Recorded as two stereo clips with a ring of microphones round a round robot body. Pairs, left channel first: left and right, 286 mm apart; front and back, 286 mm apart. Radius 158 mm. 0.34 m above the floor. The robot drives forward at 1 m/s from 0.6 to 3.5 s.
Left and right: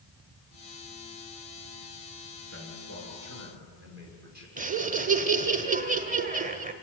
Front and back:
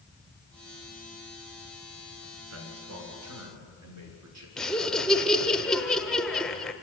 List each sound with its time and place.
2.5 s a man speaking: 145° right, 5.5 m; by 4.5 s 150° right, 6.5 m
4.6 s laughter: 85° right, 1.1 m